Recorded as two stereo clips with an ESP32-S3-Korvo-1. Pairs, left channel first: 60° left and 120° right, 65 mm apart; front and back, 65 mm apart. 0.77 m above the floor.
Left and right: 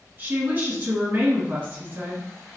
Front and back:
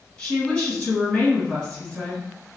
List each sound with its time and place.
0.2 s a woman speaking: 80° right, 1.6 m